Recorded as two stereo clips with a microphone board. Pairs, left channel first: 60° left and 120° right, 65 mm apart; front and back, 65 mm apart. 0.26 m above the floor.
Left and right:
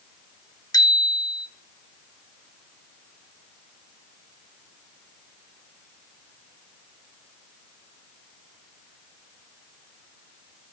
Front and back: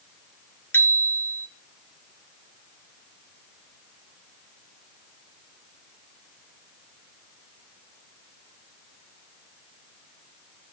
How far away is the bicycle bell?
About 2.5 m.